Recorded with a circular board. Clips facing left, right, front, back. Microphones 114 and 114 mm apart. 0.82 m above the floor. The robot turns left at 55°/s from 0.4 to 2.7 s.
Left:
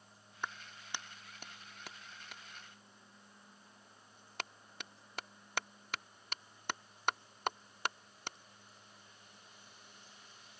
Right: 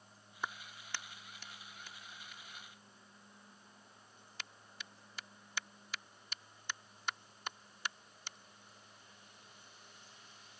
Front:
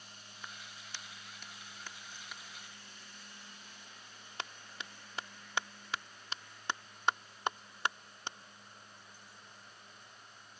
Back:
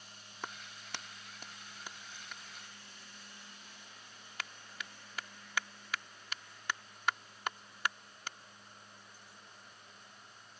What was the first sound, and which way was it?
A clap, 175° right.